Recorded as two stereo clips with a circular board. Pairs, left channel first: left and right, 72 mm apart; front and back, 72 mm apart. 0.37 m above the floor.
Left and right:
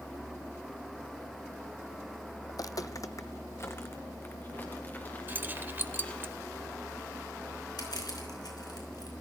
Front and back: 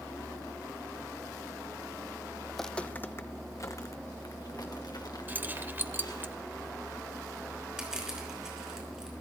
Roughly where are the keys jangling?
Behind right.